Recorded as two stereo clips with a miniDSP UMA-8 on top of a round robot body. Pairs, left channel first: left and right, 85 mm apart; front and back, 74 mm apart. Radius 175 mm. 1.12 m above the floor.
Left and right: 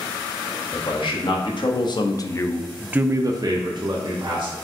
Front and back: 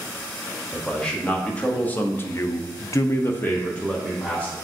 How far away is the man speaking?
About 1.3 m.